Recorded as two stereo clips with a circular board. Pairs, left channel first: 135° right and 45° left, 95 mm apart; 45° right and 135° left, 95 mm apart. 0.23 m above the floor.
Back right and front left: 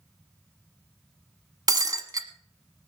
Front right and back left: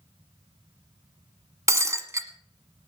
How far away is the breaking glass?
About 1.2 m.